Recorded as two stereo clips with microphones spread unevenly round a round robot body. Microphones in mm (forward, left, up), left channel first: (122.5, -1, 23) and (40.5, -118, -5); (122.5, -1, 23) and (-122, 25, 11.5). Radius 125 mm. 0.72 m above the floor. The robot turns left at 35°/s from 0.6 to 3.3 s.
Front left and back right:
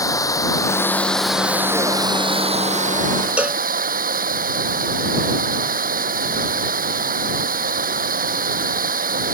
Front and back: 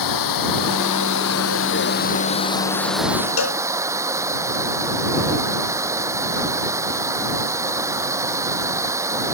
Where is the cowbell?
45° right.